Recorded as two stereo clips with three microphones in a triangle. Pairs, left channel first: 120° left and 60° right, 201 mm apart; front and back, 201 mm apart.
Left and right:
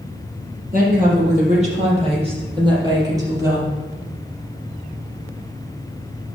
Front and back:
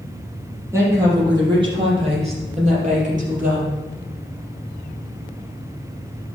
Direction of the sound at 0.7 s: 105° right.